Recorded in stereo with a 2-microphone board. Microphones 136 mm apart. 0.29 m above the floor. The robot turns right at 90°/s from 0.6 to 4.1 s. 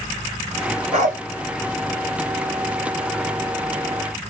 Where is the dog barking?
50° right (ahead or behind), 1.3 m; by 1.2 s 75° right (ahead or behind), 1.3 m.